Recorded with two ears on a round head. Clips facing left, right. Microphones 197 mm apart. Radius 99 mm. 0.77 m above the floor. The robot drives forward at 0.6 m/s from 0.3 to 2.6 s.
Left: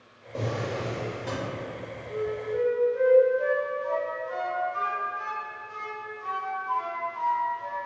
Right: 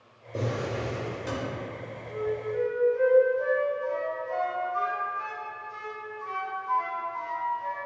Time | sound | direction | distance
0.3 | a drawer | 15° right (ahead or behind) | 0.8 m
2.1 | a flute | 25° left (ahead or behind) | 0.7 m